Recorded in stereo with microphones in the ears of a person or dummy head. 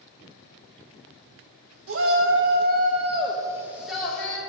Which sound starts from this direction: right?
A shout, at 1.9 s.